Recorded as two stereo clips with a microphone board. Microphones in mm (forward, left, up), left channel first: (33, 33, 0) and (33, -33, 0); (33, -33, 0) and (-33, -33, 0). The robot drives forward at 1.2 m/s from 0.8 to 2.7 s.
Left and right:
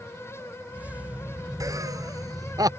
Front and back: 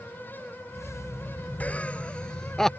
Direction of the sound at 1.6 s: 65° right.